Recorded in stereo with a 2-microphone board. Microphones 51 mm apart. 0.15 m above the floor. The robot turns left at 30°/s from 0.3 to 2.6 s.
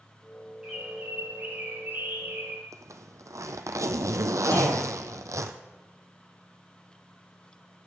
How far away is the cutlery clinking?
I don't hear cutlery clinking.